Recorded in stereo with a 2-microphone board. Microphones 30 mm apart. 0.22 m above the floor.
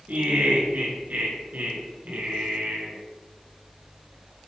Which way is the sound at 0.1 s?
65° right (ahead or behind).